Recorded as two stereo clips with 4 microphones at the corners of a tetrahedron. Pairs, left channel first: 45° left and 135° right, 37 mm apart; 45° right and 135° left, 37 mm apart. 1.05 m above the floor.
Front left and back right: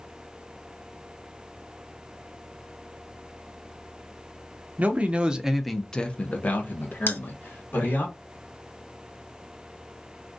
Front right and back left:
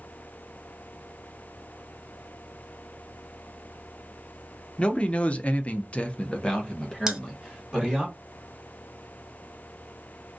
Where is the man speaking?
100° right, 0.7 m; by 8.1 s 35° left, 1.3 m.